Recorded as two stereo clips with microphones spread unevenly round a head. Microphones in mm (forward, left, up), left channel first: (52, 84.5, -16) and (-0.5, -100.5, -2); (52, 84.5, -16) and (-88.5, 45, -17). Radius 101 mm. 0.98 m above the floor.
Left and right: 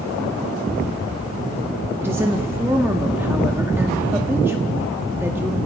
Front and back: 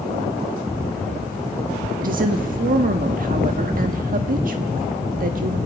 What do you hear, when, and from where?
2.0 s a woman speaking: 175° left, 1.6 m